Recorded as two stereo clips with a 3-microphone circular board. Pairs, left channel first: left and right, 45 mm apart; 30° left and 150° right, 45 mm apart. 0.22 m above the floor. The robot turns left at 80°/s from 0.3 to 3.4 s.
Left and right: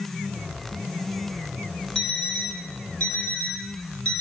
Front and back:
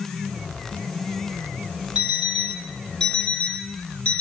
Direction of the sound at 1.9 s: 160° left.